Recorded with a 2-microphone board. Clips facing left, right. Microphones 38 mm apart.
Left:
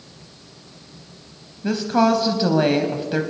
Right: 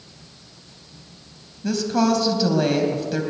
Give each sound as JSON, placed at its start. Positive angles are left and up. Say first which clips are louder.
{"t": 1.6, "sound": "a woman speaking", "louder": "left 2 dB", "side_deg": 25, "distance_m": 1.1}